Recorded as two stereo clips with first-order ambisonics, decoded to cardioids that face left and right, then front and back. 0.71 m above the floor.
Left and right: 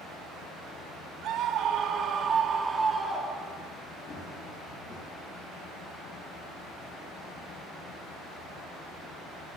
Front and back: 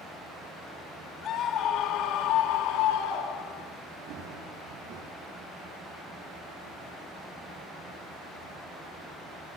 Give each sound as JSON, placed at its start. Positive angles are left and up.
{"t": 1.2, "sound": "a scream", "azimuth_deg": -50, "distance_m": 2.5}
{"t": 4.1, "sound": "running footsteps", "azimuth_deg": 150, "distance_m": 6.5}